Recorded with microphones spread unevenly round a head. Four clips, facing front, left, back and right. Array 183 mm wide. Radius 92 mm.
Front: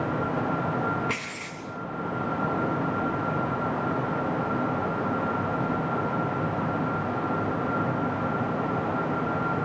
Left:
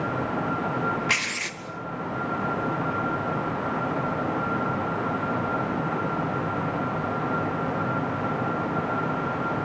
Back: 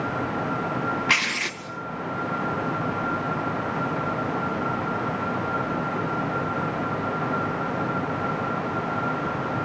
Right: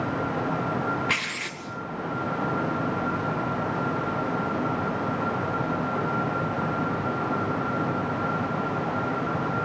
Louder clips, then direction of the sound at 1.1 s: Left 1 dB, back 6 dB; straight behind.